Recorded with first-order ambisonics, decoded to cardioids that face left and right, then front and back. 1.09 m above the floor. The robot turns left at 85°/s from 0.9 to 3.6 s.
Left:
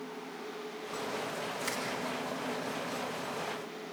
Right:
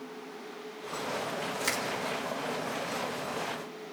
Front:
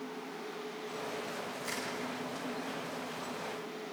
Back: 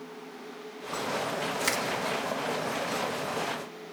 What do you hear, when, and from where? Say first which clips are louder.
1.6 s crushing: right 6 dB, back 10 dB; 150° right, 2 m; by 1.9 s 170° right, 2 m